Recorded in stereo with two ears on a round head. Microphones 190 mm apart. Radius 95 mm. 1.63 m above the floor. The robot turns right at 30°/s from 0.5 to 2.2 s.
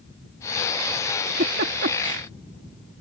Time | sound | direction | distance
1.3 | a giggle | 40° right (ahead or behind) | ?